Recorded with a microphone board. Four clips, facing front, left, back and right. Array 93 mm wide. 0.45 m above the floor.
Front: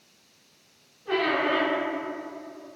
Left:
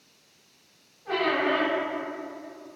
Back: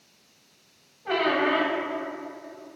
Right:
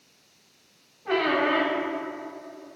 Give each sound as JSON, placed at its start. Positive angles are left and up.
{"t": 1.1, "sound": "a squeak", "azimuth_deg": -150, "distance_m": 1.8}